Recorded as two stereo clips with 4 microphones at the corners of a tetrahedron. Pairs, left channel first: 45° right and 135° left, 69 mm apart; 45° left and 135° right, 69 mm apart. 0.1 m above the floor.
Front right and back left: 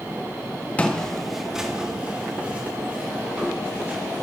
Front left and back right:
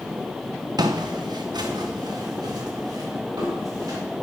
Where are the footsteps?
115° right, 1.4 m; by 4.0 s 165° right, 5.5 m.